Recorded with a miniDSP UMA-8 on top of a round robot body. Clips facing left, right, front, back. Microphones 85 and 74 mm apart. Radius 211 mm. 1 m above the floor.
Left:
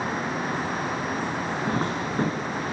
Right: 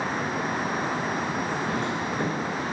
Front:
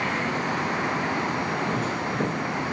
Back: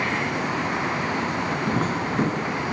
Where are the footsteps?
140° left, 8.5 m.